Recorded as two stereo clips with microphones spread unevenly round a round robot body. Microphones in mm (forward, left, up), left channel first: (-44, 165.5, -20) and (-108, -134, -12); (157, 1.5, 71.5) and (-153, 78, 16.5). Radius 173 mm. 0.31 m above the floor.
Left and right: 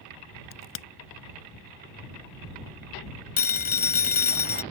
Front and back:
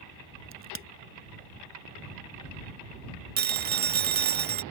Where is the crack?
100° left.